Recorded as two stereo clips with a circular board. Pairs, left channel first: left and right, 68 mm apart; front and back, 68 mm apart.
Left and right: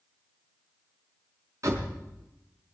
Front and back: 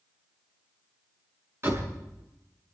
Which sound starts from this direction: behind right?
A door slam, at 1.6 s.